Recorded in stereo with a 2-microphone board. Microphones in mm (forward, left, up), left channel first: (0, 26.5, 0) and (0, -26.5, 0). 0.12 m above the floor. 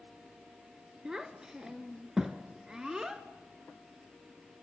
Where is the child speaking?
10° right (ahead or behind), 1.1 m.